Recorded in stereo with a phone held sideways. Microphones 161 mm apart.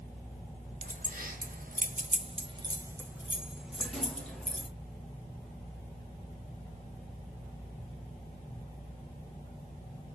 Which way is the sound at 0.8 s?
55° right (ahead or behind).